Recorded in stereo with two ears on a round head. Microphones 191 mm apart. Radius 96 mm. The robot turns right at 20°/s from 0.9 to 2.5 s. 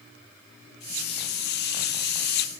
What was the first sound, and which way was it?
Only background noise.